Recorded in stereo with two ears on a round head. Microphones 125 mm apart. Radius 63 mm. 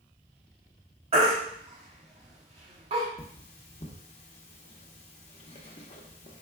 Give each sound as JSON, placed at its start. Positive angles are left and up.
{"t": 1.1, "sound": "a baby crying", "side_deg": -45, "distance_m": 1.3}
{"t": 3.2, "sound": "cutlery clinking", "side_deg": 50, "distance_m": 0.9}